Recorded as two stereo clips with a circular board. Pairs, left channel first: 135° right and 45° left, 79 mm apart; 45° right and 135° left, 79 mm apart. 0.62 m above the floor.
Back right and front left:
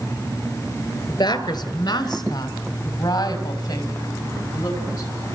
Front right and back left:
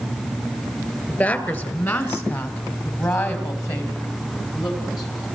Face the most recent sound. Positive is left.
turn(degrees=-85)